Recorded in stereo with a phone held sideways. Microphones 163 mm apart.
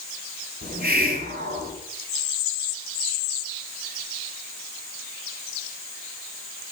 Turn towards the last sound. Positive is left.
turn(degrees=-70)  # may be behind; listen again after turning